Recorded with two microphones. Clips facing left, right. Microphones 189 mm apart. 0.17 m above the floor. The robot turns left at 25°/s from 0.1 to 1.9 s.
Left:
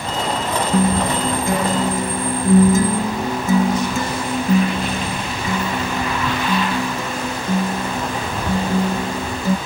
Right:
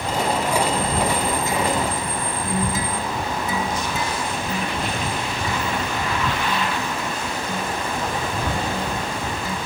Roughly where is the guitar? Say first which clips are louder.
Left 5 dB; left.